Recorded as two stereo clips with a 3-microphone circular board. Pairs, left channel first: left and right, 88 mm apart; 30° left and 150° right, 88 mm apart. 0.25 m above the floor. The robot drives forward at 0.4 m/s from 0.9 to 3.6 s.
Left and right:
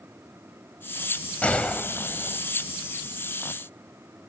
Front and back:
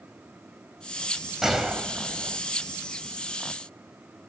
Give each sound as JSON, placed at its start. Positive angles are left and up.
{"t": 1.4, "sound": "a gunshot", "azimuth_deg": 130, "distance_m": 1.1}